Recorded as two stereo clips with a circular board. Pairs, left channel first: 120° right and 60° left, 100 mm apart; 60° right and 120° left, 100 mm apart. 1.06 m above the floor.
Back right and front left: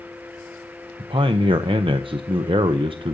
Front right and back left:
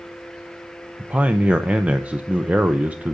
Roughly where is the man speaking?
Ahead left.